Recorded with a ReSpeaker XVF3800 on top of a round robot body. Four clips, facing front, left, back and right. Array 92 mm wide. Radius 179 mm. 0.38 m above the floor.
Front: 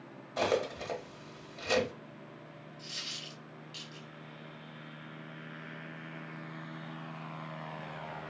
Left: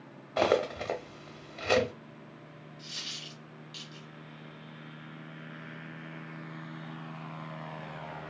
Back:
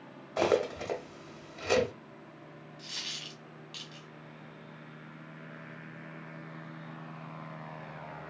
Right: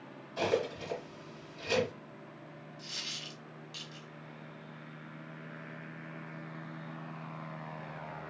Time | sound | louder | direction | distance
0.4 | cutlery clinking | left 5 dB, back 3 dB | 115° left | 0.9 m
2.8 | a dropped coin | left 1 dB, back 2 dB | 165° right | 1.7 m